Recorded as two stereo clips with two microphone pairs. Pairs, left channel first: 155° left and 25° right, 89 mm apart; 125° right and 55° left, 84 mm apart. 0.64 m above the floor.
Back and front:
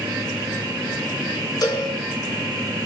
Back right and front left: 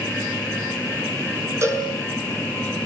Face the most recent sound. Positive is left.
turn(degrees=110)